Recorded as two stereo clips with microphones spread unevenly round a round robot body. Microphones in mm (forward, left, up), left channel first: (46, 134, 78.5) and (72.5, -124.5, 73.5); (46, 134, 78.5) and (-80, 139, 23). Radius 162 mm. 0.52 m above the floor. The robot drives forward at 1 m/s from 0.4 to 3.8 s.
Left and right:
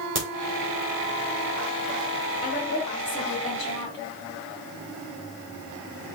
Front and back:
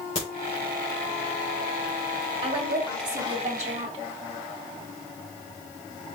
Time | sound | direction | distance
0.1 | a crack | 45° right | 3.5 m
2.4 | a woman speaking | 155° left | 2.5 m